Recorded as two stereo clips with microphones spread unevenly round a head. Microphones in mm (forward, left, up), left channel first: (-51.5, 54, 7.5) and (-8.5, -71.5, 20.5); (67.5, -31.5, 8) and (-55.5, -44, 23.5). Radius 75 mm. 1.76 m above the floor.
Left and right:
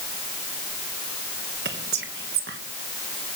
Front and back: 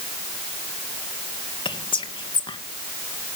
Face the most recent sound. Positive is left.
turn(degrees=-45)